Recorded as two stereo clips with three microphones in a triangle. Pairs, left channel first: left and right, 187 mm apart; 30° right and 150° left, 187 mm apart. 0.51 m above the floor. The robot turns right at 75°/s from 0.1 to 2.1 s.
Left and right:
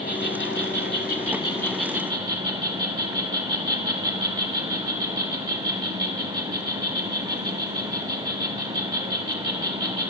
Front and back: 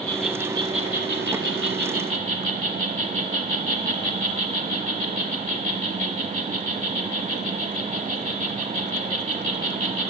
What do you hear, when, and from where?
0.0 s an insect: 50° left, 0.9 m; by 10.1 s 160° right, 0.9 m